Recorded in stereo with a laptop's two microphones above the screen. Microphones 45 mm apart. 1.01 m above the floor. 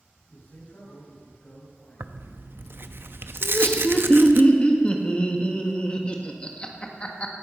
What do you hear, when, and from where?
0.3 s a man speaking: 45° left (ahead or behind), 6 m
2.0 s tearing paper: 55° right (ahead or behind), 0.7 m
3.4 s laughter: 25° left (ahead or behind), 1.6 m